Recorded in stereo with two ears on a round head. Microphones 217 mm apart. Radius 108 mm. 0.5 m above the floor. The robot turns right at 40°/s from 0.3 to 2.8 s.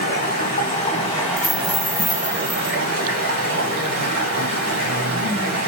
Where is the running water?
130° left, 1.9 m; by 5.7 s 130° right, 1.9 m.